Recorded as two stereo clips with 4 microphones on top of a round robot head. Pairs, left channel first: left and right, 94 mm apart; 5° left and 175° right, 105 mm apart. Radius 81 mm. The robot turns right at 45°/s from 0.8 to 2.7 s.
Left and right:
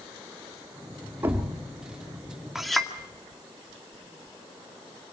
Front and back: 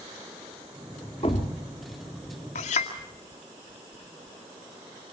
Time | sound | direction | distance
1.2 | a thud | 35° right | 1.5 m
2.5 | a clink | 5° right | 2 m